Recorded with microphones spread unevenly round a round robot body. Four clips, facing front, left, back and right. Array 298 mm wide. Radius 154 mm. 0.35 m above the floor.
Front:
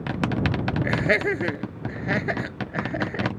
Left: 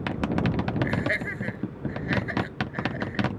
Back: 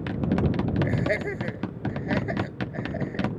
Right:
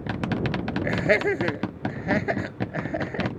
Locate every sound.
0.8 s laughter: 45° right